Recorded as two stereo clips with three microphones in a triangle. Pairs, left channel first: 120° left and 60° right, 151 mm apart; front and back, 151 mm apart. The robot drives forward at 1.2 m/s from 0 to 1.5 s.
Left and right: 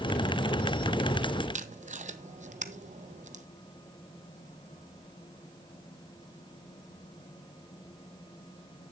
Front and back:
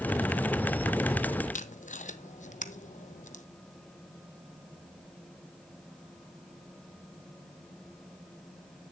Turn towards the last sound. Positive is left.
turn(degrees=-30)